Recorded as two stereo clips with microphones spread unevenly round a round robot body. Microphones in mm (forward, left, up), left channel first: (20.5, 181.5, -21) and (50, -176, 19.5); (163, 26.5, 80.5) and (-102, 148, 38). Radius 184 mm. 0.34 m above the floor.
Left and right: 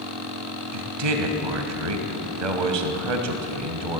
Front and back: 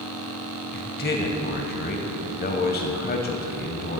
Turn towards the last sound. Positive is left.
turn(degrees=-85)